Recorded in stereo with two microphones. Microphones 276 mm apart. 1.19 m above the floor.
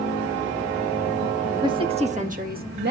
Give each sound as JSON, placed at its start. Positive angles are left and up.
{"t": 1.6, "sound": "a woman speaking", "side_deg": -15, "distance_m": 1.7}